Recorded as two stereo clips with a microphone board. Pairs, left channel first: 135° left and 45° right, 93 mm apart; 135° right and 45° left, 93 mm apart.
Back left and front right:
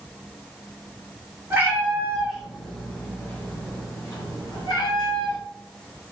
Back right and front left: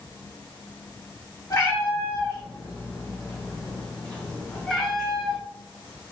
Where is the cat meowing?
100° right, 1.7 m; by 5.4 s 135° left, 2.5 m.